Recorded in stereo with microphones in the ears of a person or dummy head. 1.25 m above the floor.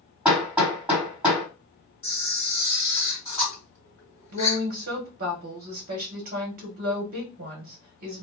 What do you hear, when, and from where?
0.2 s hammering: 10° right (ahead or behind), 1.8 m
2.0 s a camera shutter: 15° left (ahead or behind), 2.0 m
4.3 s a woman speaking: 50° right (ahead or behind), 0.9 m